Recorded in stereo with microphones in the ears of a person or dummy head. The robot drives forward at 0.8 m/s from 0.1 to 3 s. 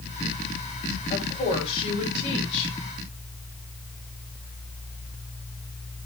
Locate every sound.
1.1 s a woman speaking: 30° left (ahead or behind), 6.5 m; by 2.8 s 35° left (ahead or behind), 5.5 m